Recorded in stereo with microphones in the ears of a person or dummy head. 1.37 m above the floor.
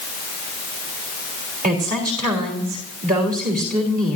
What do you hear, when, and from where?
1.6 s a woman speaking: 40° right (ahead or behind), 3 m